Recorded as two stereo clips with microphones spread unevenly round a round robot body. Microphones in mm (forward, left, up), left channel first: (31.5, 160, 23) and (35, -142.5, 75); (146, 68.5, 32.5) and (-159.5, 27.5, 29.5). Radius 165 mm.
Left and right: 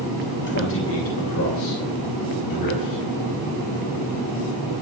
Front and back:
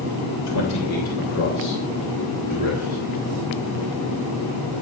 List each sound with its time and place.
0.5 s a man speaking: 35° left, 3 m; by 3.0 s 70° left, 5.5 m